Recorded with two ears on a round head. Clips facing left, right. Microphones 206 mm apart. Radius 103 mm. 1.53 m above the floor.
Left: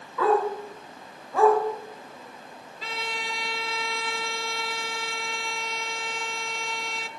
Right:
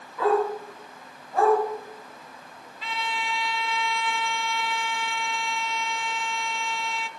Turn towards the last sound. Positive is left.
turn(degrees=35)  # may be behind; listen again after turning